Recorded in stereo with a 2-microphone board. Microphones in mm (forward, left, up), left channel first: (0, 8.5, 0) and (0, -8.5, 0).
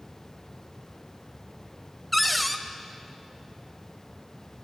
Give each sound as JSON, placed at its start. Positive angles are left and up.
{"t": 2.1, "sound": "a cupboard door", "side_deg": 0, "distance_m": 0.5}